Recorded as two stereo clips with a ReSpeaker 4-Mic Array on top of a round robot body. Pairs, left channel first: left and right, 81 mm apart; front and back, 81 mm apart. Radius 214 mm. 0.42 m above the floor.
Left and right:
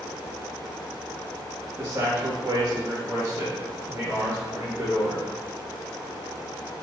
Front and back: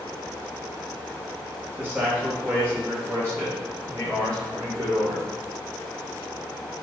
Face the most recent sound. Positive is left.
turn(degrees=-160)